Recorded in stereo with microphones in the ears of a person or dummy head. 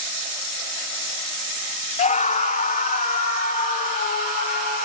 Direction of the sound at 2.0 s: 35° left (ahead or behind).